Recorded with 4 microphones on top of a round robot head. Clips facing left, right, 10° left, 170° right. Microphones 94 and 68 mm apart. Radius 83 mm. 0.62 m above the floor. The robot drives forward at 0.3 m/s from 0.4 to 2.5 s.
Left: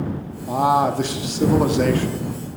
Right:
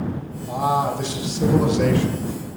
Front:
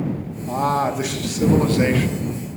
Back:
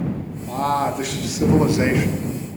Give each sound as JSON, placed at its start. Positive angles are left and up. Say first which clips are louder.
{"t": 0.5, "sound": "a man speaking", "louder": "left 3 dB, front 1 dB", "azimuth_deg": 85, "distance_m": 0.8}